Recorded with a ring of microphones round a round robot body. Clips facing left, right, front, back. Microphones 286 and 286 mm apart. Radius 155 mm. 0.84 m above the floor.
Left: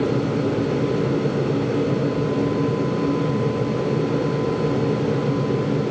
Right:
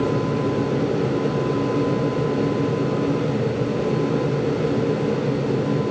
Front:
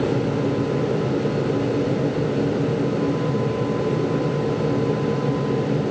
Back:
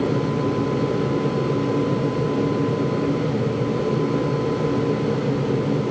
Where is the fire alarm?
No fire alarm in this recording.